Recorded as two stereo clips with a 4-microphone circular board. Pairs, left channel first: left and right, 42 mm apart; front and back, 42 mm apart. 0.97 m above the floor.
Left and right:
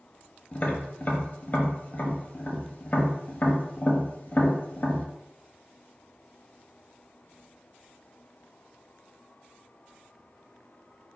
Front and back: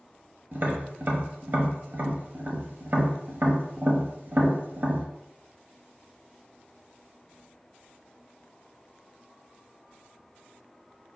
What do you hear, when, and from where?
0.5 s tapping: 140° left, 0.8 m